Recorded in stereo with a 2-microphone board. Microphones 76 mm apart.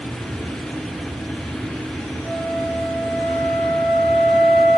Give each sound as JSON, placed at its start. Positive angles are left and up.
{"t": 2.2, "sound": "a flute", "side_deg": 0, "distance_m": 9.5}